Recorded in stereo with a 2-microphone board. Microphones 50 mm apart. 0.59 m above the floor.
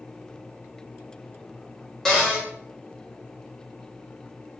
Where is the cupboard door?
5° left (ahead or behind), 1.4 m.